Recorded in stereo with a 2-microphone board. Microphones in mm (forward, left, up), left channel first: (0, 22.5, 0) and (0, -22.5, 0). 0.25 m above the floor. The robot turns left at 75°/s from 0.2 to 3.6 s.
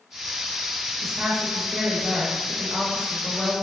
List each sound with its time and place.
1.0 s a woman speaking: centre (ahead or behind), 1.0 m